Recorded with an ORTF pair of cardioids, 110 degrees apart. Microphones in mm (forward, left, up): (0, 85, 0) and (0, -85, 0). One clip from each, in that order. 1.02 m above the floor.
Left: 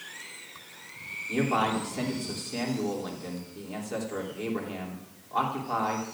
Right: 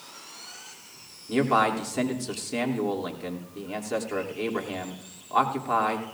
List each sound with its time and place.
1.3 s a man speaking: 40° right, 3 m